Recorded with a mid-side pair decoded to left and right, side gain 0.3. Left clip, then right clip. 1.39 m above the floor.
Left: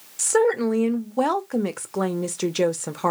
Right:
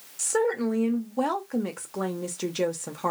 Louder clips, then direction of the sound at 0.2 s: Left 6 dB; 50° left.